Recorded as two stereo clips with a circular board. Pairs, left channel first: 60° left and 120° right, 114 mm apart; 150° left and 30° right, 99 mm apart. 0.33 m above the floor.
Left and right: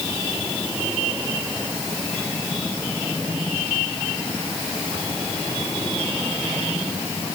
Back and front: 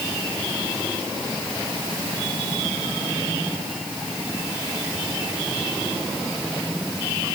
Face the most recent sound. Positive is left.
No sound to turn to.